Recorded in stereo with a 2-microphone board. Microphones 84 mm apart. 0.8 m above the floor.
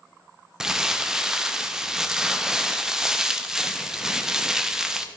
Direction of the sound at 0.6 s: 5° right (ahead or behind).